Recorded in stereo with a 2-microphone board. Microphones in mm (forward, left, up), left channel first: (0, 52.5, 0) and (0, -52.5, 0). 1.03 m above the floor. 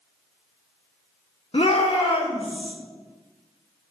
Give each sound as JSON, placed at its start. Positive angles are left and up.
{"t": 1.5, "sound": "a shout", "side_deg": 65, "distance_m": 1.7}